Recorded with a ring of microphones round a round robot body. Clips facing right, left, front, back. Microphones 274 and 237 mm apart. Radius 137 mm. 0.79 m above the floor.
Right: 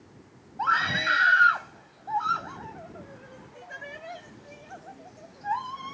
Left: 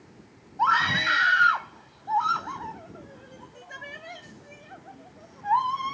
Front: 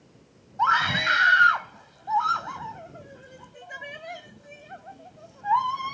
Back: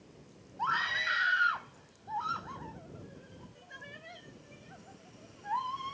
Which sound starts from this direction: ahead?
A scream, at 0.6 s.